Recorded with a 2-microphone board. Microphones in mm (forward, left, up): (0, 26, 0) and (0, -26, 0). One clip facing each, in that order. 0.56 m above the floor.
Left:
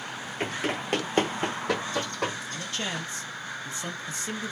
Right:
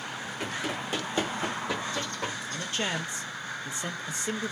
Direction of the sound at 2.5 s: 20° right (ahead or behind).